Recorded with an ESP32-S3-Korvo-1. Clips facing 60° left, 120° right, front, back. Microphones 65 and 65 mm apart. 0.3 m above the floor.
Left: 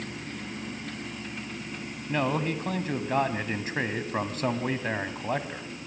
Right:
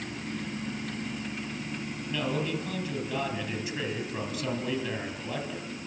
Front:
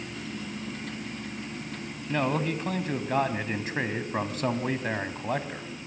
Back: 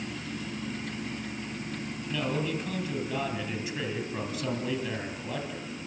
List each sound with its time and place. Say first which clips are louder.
2.1 s a man speaking: left 4 dB, front 4 dB; 30° left, 2.5 m